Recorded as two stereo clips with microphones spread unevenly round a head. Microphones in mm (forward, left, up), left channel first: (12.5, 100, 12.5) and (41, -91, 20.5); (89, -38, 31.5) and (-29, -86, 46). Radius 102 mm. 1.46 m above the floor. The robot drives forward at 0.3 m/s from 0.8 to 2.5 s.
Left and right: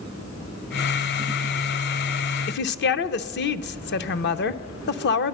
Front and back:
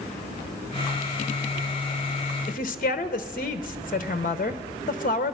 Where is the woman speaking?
70° left, 0.6 m; by 5.3 s 75° left, 0.6 m.